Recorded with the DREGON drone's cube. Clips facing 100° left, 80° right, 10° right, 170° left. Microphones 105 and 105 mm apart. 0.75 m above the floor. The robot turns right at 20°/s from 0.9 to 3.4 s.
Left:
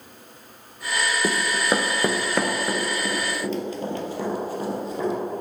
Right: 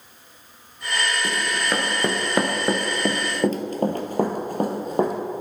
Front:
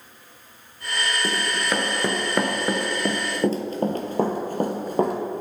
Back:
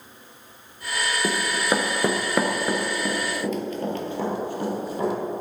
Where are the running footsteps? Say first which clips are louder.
Left 2 dB, back 4 dB; 110° left, 0.8 m; by 5.1 s 45° right, 1.7 m.